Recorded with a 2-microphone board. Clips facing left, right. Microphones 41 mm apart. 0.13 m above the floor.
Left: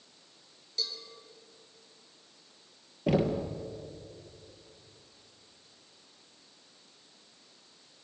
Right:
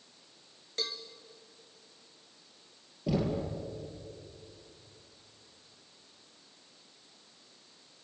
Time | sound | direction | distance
0.8 | a cowbell | 45° right (ahead or behind) | 2 m
3.1 | knocking | 50° left (ahead or behind) | 2.5 m